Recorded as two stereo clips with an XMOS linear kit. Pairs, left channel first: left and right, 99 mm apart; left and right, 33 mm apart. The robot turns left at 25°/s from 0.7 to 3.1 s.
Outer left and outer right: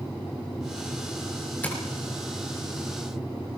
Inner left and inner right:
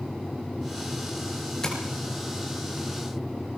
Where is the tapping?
15° left (ahead or behind), 5.5 m.